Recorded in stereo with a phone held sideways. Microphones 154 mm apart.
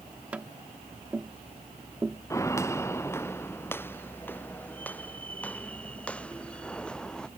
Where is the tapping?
10° right (ahead or behind).